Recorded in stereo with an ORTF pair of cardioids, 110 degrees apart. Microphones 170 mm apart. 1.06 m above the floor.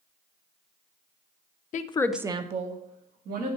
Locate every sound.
1.7 s a woman speaking: 50° left, 0.6 m; by 3.6 s 65° right, 1.9 m